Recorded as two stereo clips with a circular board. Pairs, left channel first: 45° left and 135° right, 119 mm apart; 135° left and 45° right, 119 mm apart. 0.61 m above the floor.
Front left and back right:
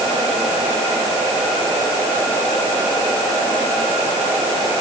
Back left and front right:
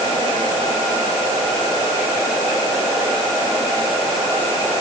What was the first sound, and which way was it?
Only background noise.